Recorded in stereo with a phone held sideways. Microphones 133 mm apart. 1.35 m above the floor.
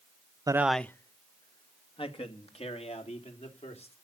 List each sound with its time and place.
0.5 s a man speaking: 30° right (ahead or behind), 0.5 m; by 3.9 s 55° left (ahead or behind), 4 m